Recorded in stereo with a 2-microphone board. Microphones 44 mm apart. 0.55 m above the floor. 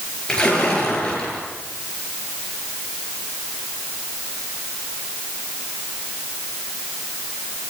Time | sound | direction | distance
0.3 | a splash | 20° left (ahead or behind) | 8.5 m